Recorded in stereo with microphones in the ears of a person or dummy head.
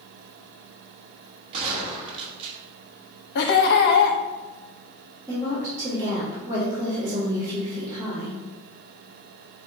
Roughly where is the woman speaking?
Centre.